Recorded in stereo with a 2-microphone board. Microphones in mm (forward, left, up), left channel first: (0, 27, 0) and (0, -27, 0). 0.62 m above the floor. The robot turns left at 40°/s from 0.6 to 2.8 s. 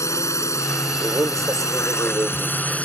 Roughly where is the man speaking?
Right.